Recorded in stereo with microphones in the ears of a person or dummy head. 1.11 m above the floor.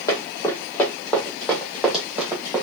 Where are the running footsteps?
25° left (ahead or behind), 2.5 m; by 2.6 s 5° right (ahead or behind), 2.5 m.